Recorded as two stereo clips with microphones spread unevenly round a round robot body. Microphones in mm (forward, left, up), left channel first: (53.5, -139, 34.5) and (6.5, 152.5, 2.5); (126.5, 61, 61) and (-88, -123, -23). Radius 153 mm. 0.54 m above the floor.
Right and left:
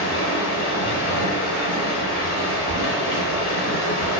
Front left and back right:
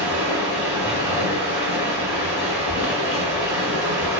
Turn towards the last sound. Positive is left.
turn(degrees=-50)